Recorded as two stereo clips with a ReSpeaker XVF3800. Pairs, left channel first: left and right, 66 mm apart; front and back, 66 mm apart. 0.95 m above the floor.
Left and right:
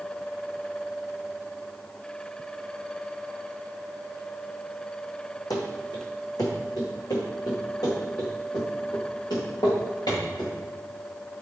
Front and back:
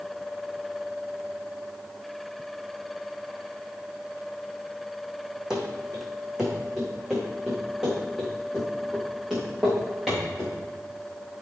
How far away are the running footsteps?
About 2 m.